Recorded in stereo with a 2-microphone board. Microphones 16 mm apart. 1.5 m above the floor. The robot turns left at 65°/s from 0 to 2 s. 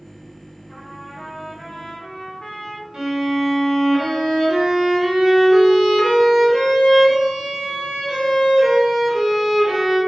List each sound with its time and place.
0.7 s a trumpet: straight behind, 0.6 m; by 2.8 s 95° left, 0.6 m
2.9 s a violin: 65° right (ahead or behind), 1.0 m